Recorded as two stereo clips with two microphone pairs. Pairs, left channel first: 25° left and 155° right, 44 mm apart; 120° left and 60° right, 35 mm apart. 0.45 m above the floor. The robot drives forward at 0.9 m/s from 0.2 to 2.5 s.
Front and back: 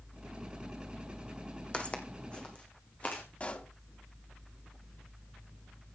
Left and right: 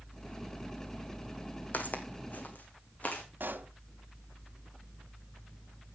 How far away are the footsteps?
About 1.4 m.